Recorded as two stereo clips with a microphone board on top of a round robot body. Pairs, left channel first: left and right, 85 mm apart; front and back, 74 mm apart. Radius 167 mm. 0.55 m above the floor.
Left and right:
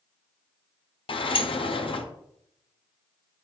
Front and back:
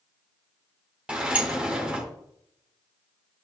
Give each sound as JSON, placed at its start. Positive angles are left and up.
{"t": 1.1, "sound": "a sliding door", "azimuth_deg": 105, "distance_m": 0.8}